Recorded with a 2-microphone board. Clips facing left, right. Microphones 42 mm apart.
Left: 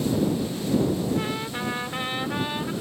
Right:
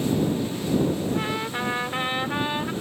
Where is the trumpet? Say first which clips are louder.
Right 1 dB; 15° right (ahead or behind).